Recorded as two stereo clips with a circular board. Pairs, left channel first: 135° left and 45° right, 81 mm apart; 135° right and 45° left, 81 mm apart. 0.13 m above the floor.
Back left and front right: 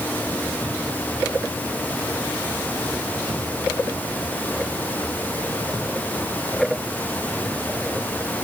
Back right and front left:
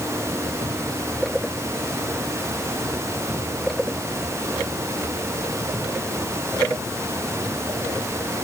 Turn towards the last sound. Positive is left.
No sound to turn to.